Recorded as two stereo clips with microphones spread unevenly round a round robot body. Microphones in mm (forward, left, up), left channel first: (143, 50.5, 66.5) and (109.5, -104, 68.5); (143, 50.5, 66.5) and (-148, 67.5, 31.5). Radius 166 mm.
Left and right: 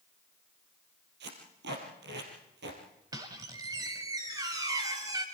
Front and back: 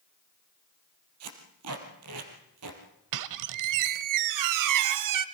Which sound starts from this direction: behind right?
Tape being pulled, at 1.2 s.